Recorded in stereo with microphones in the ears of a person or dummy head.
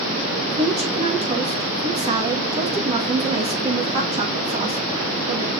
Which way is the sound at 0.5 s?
30° right (ahead or behind).